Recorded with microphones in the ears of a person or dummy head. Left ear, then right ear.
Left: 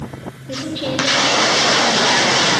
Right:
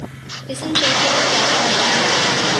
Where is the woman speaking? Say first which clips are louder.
Right 7 dB; 45° right (ahead or behind), 1.1 m.